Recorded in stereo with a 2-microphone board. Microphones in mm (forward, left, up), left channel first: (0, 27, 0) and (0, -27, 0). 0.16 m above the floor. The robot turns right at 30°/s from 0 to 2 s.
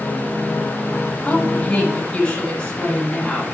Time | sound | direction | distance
1.2 | a woman speaking | 30° left (ahead or behind) | 1.9 m